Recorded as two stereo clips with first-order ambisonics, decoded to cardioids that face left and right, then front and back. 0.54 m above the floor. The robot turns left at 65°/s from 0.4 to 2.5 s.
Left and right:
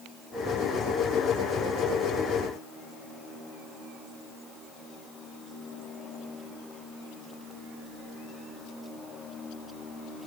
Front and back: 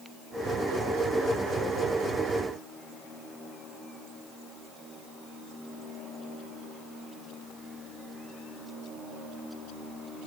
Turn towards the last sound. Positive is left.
No sound to turn to.